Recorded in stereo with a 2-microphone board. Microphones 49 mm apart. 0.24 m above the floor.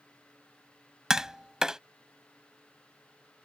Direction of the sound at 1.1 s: 10° right (ahead or behind).